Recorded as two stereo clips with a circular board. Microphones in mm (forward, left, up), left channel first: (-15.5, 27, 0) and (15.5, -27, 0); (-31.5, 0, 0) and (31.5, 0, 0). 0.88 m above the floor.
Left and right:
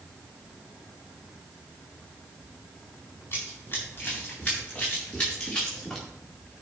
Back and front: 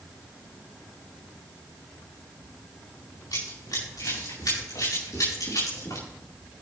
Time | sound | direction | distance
3.3 | running footsteps | 170° left | 6.5 m